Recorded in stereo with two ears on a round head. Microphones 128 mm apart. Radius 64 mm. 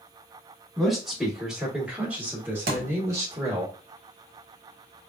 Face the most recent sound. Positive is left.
turn(degrees=-80)